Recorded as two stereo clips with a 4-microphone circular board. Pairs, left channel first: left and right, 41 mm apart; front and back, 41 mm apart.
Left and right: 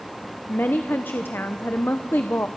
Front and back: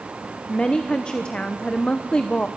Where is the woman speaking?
65° left, 1.1 m.